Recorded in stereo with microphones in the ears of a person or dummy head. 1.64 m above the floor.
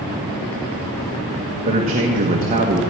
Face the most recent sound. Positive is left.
turn(degrees=-35)  # may be behind; listen again after turning